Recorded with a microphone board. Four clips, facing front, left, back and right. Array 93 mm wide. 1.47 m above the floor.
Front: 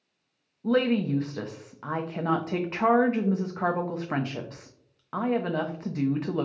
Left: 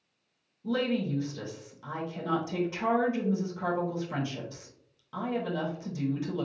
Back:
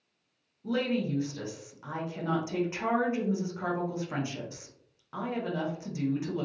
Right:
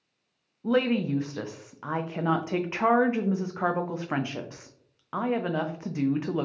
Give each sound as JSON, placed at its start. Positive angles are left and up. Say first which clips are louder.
{"t": 0.6, "sound": "a woman speaking", "louder": "right 5 dB, front 6 dB", "azimuth_deg": -50, "distance_m": 0.7}